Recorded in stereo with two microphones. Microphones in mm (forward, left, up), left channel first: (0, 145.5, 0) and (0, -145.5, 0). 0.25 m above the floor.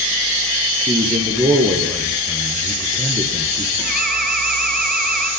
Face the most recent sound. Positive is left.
turn(degrees=-30)  # may be behind; listen again after turning